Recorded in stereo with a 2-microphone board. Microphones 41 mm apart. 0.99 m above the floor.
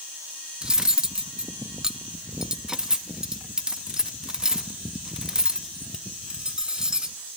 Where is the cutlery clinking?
15° right (ahead or behind), 0.5 m.